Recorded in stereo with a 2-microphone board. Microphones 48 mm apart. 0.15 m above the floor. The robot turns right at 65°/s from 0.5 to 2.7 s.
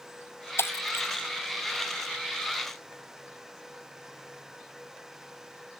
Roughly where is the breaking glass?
Left.